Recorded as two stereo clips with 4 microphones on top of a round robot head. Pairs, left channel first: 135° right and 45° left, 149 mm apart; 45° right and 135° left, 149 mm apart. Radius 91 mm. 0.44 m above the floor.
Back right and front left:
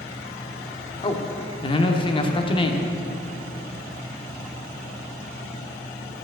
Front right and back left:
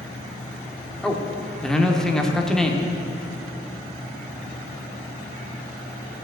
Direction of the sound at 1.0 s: 125° right.